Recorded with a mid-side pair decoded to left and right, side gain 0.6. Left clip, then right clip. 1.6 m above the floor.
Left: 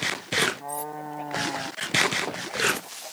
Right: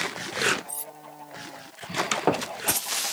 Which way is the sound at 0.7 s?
15° right.